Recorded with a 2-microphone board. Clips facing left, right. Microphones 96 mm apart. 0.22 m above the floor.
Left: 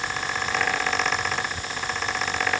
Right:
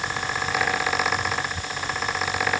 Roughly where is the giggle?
No giggle in this recording.